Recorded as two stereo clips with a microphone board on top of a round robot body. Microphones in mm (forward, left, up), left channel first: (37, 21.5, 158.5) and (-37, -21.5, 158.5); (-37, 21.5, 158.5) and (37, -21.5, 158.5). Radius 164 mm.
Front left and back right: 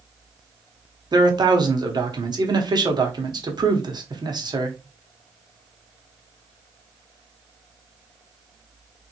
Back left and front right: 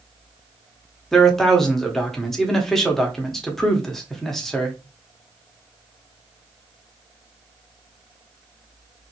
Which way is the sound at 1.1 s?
125° right.